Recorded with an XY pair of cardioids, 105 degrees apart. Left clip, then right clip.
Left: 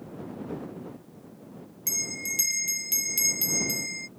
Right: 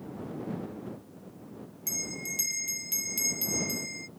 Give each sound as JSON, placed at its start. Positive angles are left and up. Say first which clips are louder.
{"t": 1.9, "sound": "a bell", "louder": "left 4 dB", "azimuth_deg": 30}